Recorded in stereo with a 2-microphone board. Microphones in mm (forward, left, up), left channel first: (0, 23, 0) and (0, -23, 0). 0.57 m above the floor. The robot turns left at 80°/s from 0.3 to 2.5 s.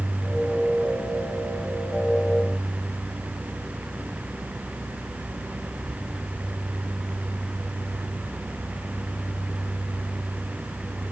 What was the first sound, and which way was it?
Only background noise.